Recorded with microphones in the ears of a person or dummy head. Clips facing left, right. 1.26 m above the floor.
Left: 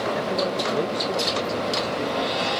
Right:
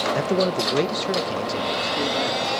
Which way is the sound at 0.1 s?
55° right (ahead or behind).